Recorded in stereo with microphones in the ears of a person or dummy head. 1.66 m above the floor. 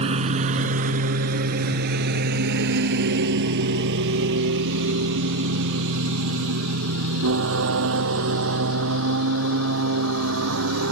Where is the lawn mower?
30° right (ahead or behind); by 10.9 s 70° right (ahead or behind).